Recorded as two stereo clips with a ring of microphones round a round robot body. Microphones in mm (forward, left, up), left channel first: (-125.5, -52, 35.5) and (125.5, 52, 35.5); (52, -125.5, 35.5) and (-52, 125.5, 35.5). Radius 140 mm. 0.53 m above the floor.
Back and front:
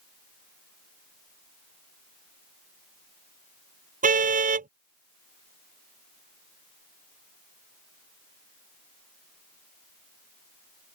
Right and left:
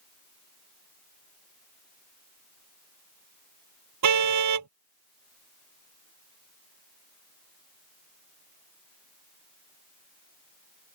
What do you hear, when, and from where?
4.0 s a car horn: 85° left